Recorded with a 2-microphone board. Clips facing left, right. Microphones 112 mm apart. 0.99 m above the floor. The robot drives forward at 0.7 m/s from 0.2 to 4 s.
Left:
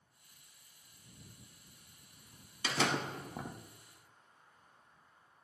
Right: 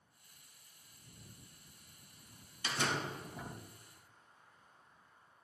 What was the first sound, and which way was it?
A door slam, 90° left.